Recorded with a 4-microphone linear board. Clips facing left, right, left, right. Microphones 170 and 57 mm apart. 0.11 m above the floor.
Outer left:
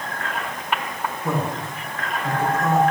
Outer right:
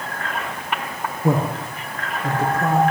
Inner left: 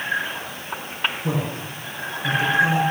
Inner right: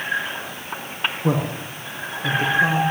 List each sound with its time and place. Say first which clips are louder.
1.2 s a man speaking: outer right 6 dB, inner right 3 dB; 50° right (ahead or behind), 4.5 m; by 2.8 s 35° right (ahead or behind), 4.5 m